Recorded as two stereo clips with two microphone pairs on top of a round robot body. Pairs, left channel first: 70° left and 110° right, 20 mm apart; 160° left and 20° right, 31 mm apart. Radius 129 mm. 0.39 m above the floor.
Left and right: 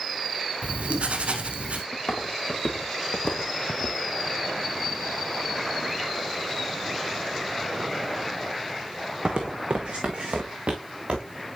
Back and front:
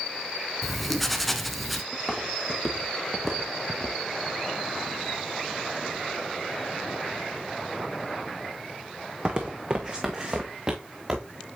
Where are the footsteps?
70° left, 2.5 m; by 11.3 s 85° right, 2.5 m.